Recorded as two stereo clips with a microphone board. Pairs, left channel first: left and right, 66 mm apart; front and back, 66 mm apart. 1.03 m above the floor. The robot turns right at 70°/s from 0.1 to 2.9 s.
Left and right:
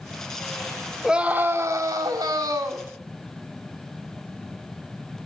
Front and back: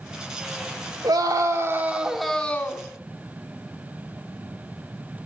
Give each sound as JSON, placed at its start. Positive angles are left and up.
{"t": 1.0, "sound": "a scream", "azimuth_deg": -175, "distance_m": 2.5}